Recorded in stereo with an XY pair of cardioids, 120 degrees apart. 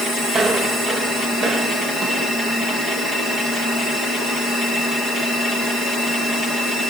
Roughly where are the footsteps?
Ahead right.